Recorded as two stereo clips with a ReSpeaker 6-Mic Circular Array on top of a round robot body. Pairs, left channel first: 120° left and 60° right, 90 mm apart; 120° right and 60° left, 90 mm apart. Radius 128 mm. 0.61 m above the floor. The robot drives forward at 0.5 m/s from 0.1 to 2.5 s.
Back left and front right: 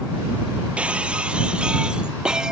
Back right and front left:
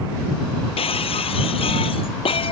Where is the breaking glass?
135° right; by 2.5 s 140° right.